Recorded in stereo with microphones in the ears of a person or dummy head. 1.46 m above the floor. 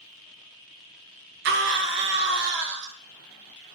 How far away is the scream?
About 0.7 m.